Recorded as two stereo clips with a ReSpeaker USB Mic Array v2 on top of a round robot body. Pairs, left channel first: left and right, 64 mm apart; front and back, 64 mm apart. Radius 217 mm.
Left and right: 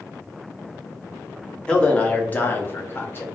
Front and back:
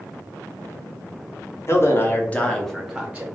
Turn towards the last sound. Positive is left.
turn(degrees=120)